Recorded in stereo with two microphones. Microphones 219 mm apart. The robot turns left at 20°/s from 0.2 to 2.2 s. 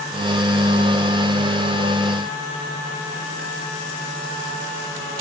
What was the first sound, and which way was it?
Only background noise.